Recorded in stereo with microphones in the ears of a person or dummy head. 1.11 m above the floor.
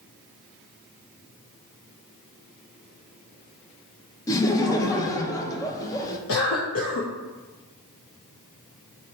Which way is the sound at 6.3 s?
75° left (ahead or behind).